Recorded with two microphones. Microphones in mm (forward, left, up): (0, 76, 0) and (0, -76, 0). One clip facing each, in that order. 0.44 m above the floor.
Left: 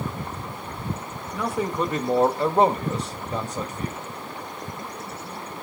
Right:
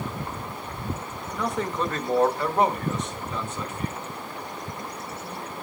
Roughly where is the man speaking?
Centre.